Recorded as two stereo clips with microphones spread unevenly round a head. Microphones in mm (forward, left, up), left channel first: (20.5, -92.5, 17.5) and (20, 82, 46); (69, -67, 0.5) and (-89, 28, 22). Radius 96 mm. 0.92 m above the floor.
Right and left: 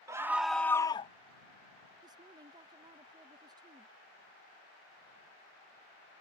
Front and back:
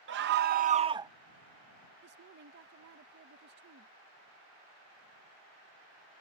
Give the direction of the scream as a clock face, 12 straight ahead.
6 o'clock.